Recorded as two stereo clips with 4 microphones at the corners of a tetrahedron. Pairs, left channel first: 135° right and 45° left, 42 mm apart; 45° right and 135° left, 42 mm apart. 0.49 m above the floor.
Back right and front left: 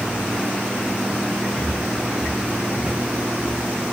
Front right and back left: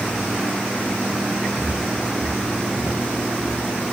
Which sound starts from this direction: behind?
Footsteps, at 1.6 s.